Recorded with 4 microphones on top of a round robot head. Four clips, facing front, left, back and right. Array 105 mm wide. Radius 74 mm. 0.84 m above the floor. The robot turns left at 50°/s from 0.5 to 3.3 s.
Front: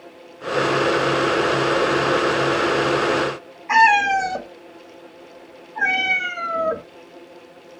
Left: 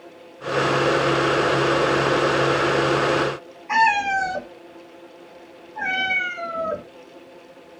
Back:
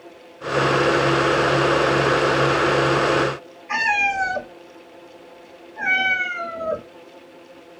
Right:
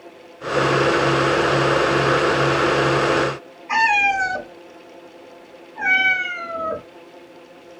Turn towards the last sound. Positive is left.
turn(degrees=10)